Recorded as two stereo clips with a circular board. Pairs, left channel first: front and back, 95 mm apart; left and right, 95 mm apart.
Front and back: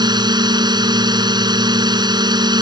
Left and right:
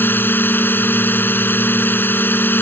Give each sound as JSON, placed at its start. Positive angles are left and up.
{"t": 0.0, "sound": "a drone", "azimuth_deg": 155}